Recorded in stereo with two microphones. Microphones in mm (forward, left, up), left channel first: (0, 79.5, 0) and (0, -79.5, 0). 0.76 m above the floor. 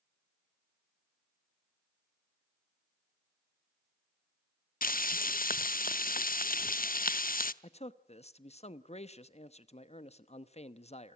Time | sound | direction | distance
4.8 | frying | 65° left (ahead or behind) | 0.6 m
7.6 | a man speaking | 45° left (ahead or behind) | 0.9 m